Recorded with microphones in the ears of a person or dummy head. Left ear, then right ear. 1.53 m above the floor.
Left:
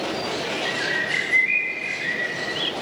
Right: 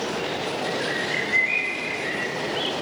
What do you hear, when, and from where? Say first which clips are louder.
0.7 s a bird: left 3 dB; 20° left (ahead or behind), 1.4 m